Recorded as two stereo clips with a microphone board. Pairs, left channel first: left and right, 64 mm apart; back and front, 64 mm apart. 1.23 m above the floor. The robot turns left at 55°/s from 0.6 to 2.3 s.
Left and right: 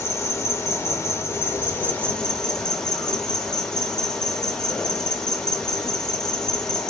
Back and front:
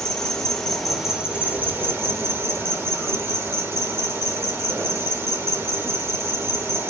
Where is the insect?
105° left, 0.8 m; by 6.9 s 15° left, 0.8 m.